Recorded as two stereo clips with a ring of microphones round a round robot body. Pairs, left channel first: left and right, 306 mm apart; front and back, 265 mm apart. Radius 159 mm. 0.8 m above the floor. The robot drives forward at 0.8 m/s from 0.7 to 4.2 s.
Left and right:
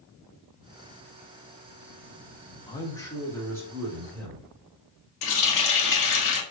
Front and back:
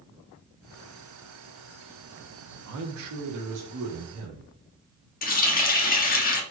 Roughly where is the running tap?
Ahead left.